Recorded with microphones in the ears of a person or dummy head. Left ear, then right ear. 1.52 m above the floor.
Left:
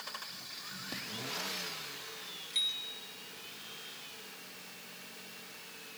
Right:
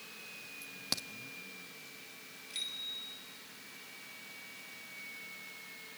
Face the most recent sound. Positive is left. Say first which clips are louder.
# left 5 dB
turn(degrees=0)  # may be behind; listen again after turning